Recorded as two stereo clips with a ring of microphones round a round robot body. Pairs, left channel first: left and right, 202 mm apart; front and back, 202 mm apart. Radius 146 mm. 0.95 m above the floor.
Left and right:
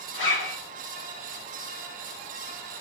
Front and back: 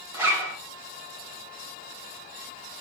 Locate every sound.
0.1 s a zipper: 100° left, 1.2 m